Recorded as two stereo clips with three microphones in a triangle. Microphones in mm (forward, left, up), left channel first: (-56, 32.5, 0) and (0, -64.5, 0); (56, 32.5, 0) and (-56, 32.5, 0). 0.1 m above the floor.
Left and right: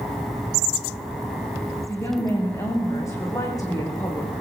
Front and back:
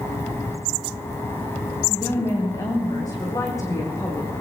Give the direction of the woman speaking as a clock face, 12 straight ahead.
10 o'clock.